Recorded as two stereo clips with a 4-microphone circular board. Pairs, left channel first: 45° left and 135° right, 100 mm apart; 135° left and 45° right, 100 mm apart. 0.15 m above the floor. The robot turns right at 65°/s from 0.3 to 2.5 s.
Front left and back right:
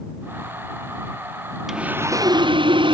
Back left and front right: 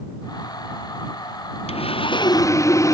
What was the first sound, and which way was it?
Sawing, 140° left.